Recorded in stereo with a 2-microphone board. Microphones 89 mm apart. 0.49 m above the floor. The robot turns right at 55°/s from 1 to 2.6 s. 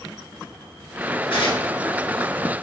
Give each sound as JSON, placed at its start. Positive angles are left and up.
{"t": 1.3, "sound": "tearing paper", "side_deg": 80, "distance_m": 9.0}